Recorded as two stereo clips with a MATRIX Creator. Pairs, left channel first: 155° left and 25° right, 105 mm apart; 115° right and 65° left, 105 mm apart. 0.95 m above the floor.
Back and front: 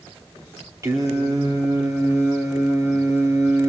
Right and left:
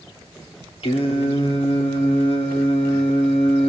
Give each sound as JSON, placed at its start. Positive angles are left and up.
{"t": 0.8, "sound": "singing", "azimuth_deg": -85, "distance_m": 3.0}